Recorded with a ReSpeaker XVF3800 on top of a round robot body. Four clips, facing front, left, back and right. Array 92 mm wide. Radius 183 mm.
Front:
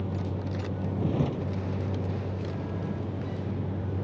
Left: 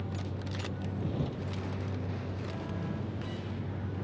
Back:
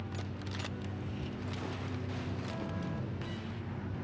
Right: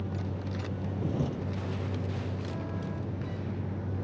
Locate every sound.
0.0 s a vehicle: 15° right